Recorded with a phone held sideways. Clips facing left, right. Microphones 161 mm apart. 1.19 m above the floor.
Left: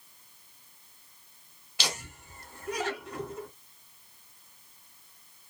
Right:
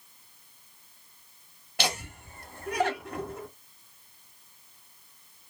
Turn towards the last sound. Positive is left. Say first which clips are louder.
# right 5 dB
turn(degrees=-55)  # may be behind; listen again after turning